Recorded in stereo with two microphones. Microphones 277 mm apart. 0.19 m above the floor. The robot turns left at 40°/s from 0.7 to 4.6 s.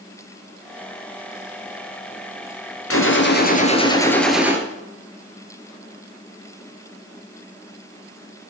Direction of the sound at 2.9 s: 55° left.